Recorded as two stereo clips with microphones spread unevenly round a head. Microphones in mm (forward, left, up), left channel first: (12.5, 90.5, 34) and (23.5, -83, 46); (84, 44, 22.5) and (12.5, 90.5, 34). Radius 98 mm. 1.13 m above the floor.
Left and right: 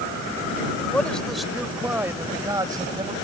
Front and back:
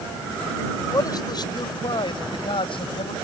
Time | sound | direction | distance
0.9 | a man speaking | 10° left | ?